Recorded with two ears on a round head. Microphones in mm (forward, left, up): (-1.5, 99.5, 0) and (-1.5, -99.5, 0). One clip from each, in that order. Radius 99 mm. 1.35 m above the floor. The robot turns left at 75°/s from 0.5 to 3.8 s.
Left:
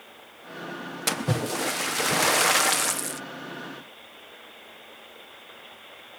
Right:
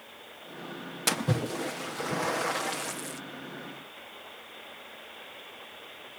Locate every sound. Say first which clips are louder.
1.1 s a splash: left 2 dB; straight behind; by 3.2 s 20° left